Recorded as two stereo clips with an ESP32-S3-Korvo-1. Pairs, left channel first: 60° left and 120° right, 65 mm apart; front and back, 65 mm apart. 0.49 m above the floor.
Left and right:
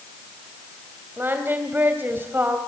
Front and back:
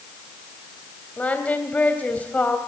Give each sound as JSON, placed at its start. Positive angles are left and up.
{"t": 1.2, "sound": "singing", "azimuth_deg": -65, "distance_m": 2.5}